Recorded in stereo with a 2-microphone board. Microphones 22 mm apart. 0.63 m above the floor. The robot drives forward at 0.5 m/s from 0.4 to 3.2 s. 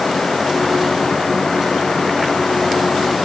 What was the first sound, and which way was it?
Only background noise.